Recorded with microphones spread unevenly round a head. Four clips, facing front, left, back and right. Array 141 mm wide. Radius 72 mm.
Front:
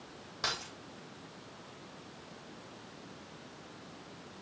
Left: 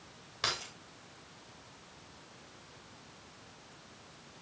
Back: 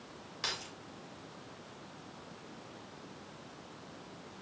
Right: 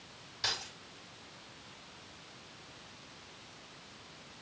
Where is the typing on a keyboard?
I don't hear typing on a keyboard.